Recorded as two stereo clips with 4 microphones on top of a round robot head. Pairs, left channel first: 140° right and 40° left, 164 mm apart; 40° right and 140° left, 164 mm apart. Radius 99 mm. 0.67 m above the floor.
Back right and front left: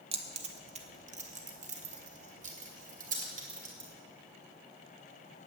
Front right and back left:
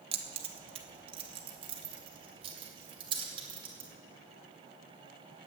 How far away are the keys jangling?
About 1.1 m.